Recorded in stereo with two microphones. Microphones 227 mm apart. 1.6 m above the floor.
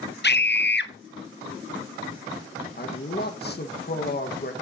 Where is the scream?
50° left (ahead or behind), 0.9 m.